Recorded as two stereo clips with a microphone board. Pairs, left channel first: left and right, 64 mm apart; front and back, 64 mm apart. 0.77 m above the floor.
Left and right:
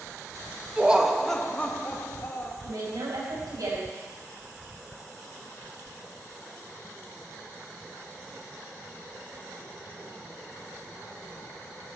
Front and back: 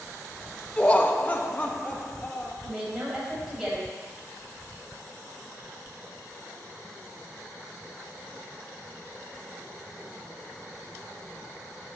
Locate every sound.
0.8 s laughter: 50° right, 0.7 m; by 2.5 s 60° left, 1.2 m
2.6 s a woman speaking: 95° right, 4.5 m